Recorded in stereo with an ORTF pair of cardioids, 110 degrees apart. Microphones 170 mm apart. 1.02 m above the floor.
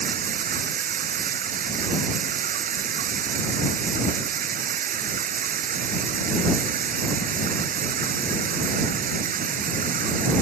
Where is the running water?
55° right.